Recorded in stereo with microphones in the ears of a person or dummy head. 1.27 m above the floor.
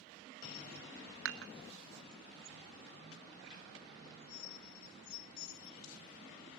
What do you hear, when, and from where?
1.2 s dishes clattering: 60° right (ahead or behind), 0.8 m